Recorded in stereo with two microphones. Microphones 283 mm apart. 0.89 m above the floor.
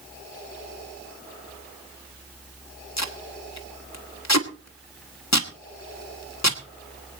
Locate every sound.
3.0 s tape being pulled: 70° left (ahead or behind), 1.5 m